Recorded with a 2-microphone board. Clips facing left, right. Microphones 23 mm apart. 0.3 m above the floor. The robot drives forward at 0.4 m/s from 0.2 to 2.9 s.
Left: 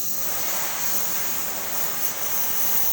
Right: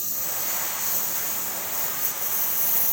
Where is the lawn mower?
10° left (ahead or behind); by 2.9 s 15° left (ahead or behind).